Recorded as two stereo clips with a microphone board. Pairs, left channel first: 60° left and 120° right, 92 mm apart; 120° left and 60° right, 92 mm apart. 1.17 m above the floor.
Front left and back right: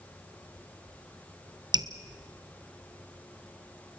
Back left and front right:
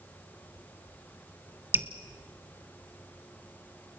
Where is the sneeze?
I don't hear a sneeze.